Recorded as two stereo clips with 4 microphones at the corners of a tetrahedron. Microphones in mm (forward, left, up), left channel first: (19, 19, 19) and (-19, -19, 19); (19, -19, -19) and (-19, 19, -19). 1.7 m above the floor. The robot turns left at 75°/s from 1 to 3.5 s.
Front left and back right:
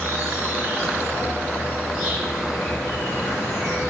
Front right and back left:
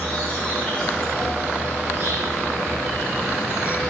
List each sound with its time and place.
0.0 s an insect: 110° right, 3 m; by 3.9 s 65° left, 3 m